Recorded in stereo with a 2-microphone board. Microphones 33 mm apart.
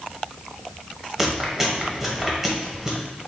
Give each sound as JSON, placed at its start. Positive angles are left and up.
{"t": 1.2, "sound": "chewing", "side_deg": -15, "distance_m": 1.0}